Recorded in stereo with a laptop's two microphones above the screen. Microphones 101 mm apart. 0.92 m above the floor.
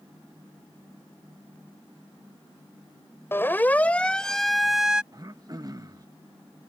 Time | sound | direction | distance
3.3 | a siren | 20° left (ahead or behind) | ?
5.1 | throat clearing | 35° right (ahead or behind) | ?